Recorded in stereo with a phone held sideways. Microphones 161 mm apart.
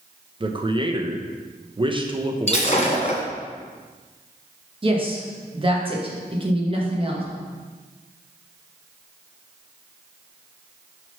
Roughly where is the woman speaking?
Right.